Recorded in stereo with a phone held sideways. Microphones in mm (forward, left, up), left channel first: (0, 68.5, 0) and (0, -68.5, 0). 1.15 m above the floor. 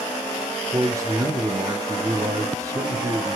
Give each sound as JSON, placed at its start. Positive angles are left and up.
{"t": 0.7, "sound": "a man speaking", "side_deg": -25, "distance_m": 3.0}